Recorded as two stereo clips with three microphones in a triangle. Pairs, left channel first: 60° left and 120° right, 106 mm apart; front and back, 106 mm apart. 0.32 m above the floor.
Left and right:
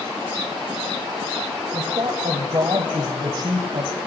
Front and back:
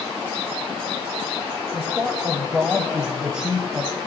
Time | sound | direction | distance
1.7 | a man speaking | 100° right | 1.4 m